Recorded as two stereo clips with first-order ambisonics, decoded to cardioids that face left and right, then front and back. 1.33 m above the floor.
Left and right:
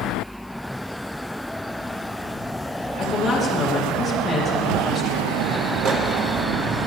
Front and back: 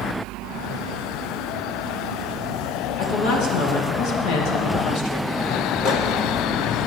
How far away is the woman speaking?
About 2.5 m.